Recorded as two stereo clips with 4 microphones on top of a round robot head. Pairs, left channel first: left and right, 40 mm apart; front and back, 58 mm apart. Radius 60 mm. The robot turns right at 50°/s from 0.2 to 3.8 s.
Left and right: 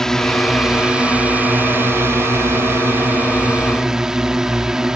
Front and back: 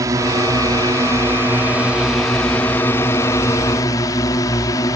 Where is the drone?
165° left; by 5.0 s 15° right.